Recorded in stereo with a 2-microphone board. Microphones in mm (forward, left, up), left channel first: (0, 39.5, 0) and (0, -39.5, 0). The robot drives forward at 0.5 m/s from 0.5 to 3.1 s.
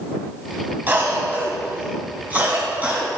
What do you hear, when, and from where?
0.9 s a cough: 30° right (ahead or behind), 1.9 m; by 3.1 s 20° right (ahead or behind), 2.5 m